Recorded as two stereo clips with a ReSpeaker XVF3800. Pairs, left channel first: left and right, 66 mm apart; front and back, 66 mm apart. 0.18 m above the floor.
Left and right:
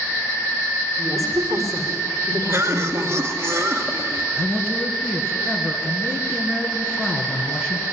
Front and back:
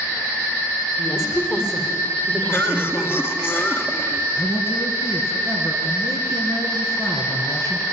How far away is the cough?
About 2.5 m.